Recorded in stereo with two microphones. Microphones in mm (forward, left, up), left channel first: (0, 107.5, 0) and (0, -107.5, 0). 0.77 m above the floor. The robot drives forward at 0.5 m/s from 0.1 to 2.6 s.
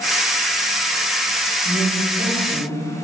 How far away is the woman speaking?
About 3 m.